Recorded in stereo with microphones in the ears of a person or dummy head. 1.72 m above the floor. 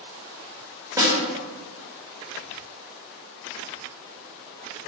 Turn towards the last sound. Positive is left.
turn(degrees=-20)  # may be behind; listen again after turning